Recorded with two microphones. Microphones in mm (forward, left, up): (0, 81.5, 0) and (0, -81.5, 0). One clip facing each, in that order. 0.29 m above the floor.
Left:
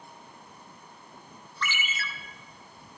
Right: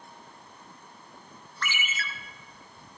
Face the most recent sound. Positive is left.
turn(degrees=-55)  # may be behind; listen again after turning